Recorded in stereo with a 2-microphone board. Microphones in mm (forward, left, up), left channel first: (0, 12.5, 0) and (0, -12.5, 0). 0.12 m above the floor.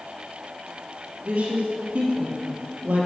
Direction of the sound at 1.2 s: 50° right (ahead or behind).